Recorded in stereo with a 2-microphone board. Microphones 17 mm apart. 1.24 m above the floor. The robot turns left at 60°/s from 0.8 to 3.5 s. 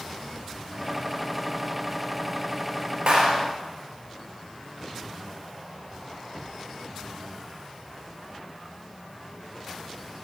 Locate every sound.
3.1 s a clap: 60° right (ahead or behind), 4.5 m; by 3.4 s 80° right, 4.5 m